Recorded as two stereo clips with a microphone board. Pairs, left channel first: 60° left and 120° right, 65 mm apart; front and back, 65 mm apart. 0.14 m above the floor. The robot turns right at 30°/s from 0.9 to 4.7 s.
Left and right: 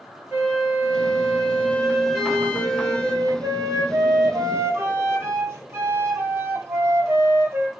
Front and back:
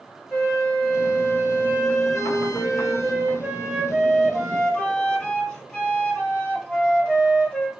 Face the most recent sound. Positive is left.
turn(degrees=-75)